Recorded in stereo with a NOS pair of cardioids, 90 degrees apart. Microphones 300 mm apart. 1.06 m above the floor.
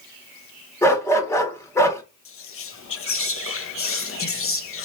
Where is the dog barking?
10° left, 1.3 m.